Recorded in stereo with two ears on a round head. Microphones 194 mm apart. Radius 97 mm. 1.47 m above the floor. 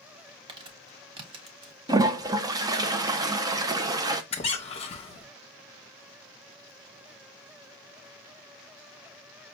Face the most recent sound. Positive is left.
turn(degrees=30)  # may be behind; listen again after turning